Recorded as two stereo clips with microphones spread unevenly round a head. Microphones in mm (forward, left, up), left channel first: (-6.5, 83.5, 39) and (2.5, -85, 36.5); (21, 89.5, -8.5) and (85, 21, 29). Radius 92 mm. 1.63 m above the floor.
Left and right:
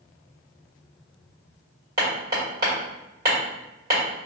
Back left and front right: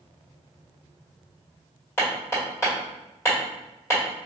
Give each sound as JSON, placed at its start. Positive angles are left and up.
{"t": 2.0, "sound": "hammering", "azimuth_deg": -135, "distance_m": 1.4}